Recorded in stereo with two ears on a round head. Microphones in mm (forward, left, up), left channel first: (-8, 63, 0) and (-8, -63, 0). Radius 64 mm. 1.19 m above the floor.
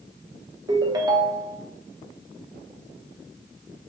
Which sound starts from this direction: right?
A ringtone, at 0.7 s.